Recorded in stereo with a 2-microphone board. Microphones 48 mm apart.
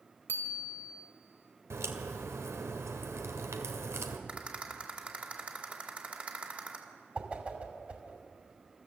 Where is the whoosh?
25° right (ahead or behind), 2.5 m.